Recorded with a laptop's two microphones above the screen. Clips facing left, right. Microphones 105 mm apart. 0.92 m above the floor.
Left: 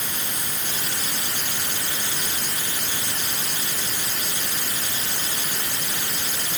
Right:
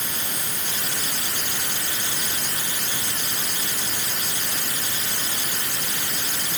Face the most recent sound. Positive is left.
No sound to turn to.